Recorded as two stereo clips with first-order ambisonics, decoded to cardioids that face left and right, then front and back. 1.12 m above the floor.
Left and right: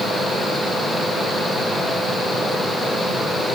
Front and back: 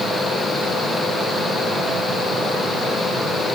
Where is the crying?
I don't hear crying.